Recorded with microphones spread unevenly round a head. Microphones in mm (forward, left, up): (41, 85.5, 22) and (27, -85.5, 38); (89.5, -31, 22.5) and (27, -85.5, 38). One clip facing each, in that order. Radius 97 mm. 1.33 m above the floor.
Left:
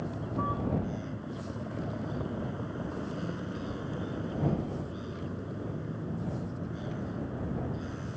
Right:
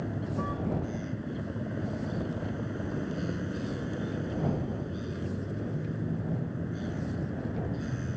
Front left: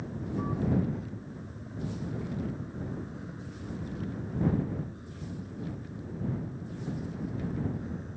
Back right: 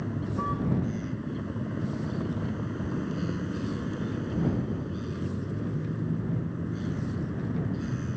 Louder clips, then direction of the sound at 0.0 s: Right 1 dB, back right 4 dB; 170° right.